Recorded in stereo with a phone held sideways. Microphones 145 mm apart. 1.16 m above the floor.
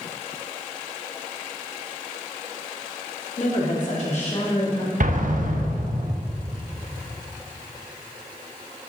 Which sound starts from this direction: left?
A woman speaking, at 3.4 s.